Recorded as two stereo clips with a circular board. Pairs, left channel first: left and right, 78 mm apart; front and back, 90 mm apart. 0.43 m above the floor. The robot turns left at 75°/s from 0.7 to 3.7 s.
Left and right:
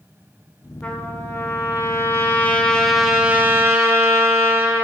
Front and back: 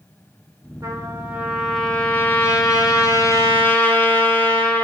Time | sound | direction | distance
0.8 | a trumpet | 160° left | 1.2 m